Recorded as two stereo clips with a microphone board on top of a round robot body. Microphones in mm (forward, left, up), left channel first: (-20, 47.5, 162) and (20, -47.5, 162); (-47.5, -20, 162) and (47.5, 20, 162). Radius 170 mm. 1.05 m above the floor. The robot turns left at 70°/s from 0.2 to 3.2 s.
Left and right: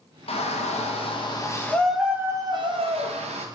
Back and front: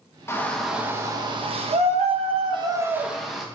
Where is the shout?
140° left, 1.6 m; by 3.5 s 65° right, 1.6 m.